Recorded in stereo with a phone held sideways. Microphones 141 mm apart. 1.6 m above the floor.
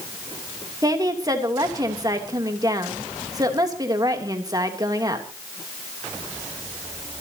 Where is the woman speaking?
25° right (ahead or behind), 3 m.